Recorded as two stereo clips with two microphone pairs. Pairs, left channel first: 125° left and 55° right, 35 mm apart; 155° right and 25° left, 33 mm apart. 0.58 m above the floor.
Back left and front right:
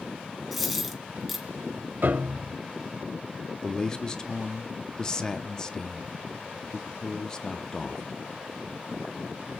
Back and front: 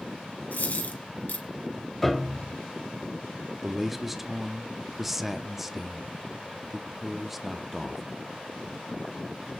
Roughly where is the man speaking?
Left.